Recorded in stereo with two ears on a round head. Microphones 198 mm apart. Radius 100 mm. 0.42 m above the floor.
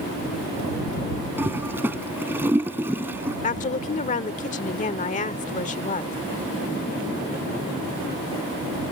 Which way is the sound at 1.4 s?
10° right (ahead or behind).